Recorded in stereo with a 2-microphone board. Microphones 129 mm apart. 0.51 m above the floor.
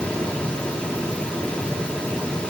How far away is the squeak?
I don't hear a squeak.